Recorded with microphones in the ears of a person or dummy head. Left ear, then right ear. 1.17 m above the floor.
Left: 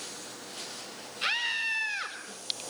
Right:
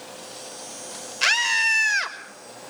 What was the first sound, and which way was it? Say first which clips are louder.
A scream: right 9 dB; 70° right (ahead or behind).